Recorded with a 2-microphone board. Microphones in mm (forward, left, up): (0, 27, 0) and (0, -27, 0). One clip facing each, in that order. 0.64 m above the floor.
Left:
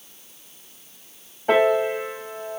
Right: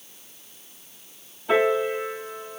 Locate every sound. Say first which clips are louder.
1.5 s a piano: left 3 dB; 65° left (ahead or behind), 4 m